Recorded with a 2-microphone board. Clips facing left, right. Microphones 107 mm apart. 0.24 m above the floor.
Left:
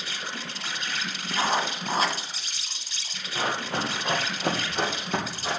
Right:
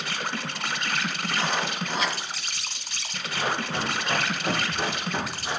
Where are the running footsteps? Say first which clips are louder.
Even; 35° left (ahead or behind), 3 m; by 5.6 s 65° left (ahead or behind), 3 m.